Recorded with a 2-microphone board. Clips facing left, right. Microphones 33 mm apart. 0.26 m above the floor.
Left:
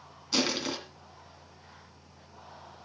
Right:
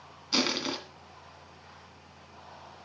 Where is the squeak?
I don't hear a squeak.